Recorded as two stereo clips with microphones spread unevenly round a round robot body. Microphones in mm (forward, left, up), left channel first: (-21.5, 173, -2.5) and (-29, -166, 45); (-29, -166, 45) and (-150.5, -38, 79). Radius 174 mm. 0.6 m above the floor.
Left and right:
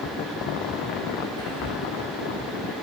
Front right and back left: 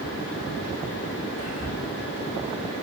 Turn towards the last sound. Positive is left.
turn(degrees=80)